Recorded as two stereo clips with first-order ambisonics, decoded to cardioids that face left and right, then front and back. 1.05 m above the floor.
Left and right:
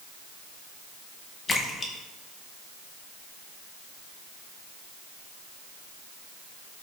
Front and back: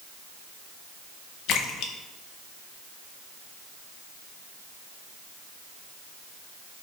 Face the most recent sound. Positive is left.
turn(degrees=25)